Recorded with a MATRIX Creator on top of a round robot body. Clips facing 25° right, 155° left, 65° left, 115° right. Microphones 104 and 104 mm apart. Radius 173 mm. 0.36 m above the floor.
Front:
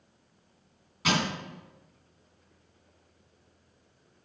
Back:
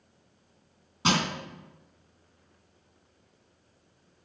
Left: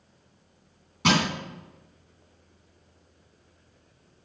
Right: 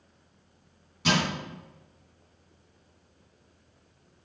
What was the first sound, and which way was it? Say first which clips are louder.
Crushing: back 1 dB, left 3 dB; 90° left.